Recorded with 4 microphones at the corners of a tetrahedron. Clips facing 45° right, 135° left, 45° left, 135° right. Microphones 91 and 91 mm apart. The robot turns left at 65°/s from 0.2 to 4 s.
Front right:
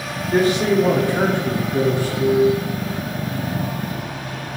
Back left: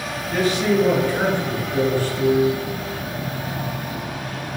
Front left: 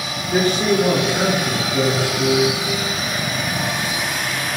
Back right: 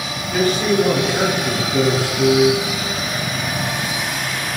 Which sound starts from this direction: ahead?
A man speaking, at 0.3 s.